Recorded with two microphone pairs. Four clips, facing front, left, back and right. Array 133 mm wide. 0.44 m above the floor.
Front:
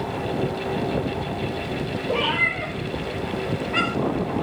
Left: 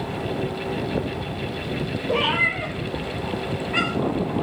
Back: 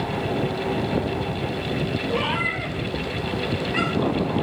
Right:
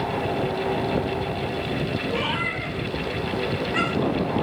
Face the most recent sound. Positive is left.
turn(degrees=25)